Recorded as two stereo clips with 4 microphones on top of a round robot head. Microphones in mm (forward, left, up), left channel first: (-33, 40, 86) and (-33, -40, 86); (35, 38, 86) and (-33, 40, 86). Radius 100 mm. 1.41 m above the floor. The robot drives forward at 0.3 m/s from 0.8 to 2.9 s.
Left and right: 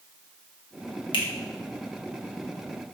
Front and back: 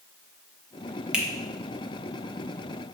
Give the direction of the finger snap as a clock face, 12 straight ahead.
9 o'clock.